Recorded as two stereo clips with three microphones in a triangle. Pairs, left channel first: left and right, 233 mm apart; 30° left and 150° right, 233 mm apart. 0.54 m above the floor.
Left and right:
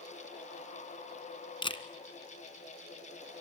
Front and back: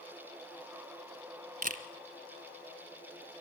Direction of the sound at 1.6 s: 160° left.